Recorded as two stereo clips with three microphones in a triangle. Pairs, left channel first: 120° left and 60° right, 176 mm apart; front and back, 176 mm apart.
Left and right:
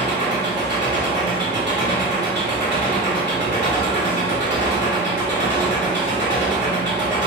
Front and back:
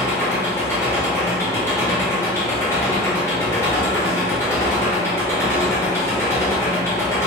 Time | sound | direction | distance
0.0 | an engine running | 75° right | 1.1 m